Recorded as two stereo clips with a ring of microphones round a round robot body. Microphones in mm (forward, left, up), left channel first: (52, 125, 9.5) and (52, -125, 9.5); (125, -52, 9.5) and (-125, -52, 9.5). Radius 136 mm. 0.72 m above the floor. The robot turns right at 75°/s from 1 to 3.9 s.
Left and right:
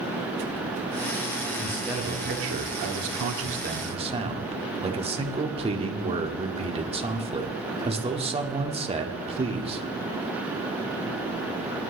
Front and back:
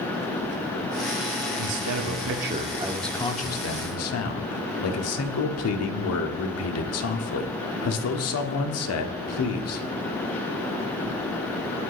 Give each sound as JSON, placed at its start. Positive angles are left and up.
{"t": 1.6, "sound": "a man speaking", "azimuth_deg": 165, "distance_m": 1.4}